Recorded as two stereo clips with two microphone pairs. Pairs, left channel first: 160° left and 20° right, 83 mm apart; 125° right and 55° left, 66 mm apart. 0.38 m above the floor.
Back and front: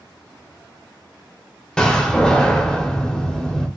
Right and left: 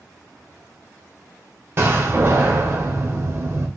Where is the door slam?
85° left, 0.6 m.